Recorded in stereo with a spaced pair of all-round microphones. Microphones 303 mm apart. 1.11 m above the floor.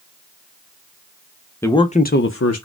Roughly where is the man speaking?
Centre.